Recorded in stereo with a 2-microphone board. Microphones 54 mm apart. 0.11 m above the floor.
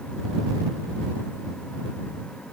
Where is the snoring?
No snoring in this recording.